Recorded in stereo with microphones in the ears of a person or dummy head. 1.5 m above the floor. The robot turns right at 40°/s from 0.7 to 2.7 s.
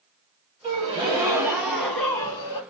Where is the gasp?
45° right, 0.7 m; by 2.6 s 30° left, 0.7 m.